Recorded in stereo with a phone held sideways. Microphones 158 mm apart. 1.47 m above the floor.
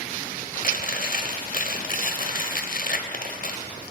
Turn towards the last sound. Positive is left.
turn(degrees=60)  # may be behind; listen again after turning